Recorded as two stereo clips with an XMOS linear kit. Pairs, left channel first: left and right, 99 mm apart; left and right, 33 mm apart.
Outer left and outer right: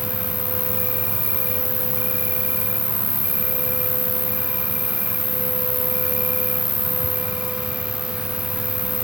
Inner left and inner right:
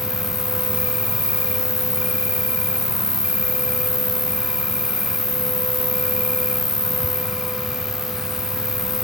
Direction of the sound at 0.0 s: 15° right (ahead or behind).